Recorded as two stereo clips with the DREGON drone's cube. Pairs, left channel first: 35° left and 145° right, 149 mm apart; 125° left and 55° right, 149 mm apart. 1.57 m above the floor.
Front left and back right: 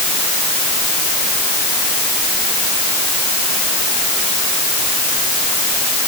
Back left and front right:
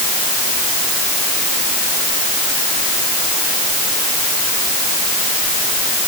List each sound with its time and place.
Only background noise.